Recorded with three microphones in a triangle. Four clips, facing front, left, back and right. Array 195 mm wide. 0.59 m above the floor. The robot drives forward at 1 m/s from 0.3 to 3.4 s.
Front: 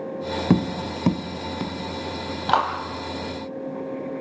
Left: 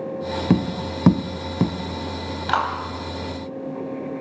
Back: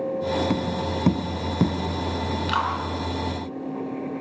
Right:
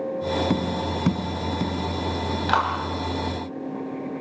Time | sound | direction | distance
0.5 | tapping | 30° left | 0.8 m
2.5 | a clap | straight ahead | 3.5 m